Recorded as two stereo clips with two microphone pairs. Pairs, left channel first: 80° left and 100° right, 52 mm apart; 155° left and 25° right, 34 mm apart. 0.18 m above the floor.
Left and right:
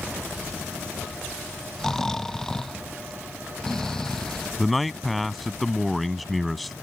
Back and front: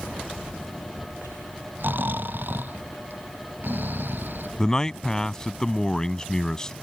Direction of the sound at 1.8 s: Straight ahead.